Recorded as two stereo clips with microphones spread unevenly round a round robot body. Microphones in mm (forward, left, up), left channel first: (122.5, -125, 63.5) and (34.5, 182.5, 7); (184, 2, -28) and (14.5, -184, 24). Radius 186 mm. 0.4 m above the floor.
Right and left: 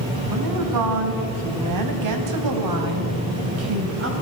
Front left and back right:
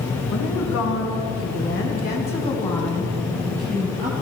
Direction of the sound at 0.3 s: 90° left.